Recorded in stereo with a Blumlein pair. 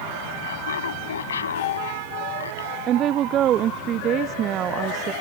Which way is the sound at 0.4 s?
65° left.